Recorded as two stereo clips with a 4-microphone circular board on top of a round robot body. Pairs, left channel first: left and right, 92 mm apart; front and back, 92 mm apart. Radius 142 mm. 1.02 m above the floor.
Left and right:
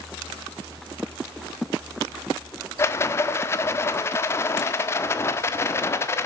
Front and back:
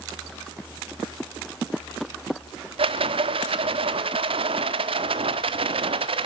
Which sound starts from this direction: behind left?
A rattle, at 2.8 s.